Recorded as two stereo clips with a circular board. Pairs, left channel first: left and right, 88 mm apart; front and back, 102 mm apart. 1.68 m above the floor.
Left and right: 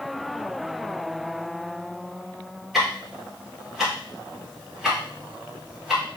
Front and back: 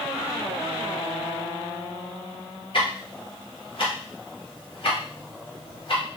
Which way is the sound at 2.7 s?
Straight ahead.